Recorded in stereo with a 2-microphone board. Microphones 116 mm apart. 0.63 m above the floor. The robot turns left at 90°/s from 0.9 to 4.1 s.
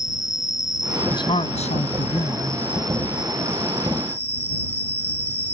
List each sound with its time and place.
0.0 s an insect: 5° right; by 5.5 s 70° left
1.1 s a man speaking: 145° left; by 2.6 s 5° left